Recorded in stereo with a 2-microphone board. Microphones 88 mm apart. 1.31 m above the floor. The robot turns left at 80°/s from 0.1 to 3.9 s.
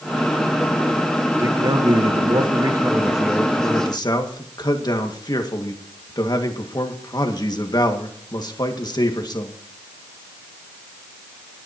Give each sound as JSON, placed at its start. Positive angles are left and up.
{"t": 1.4, "sound": "a man speaking", "azimuth_deg": -30, "distance_m": 1.9}